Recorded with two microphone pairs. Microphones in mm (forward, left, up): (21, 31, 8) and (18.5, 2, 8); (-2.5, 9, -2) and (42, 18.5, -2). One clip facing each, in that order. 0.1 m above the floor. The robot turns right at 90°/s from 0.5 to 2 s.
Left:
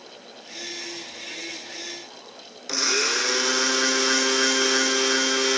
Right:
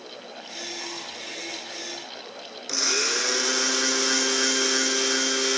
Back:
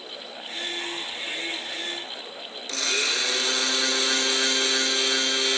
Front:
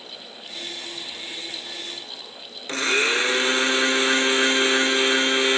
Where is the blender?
20° left, 0.7 m.